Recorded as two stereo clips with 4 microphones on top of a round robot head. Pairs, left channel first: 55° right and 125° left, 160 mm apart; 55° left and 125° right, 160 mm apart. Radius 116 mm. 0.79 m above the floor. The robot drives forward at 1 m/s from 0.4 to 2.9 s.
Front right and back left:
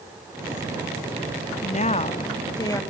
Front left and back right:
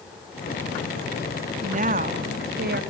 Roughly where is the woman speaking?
Right.